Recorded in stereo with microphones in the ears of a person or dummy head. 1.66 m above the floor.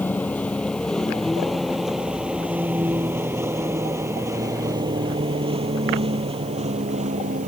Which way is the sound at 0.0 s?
5° left (ahead or behind).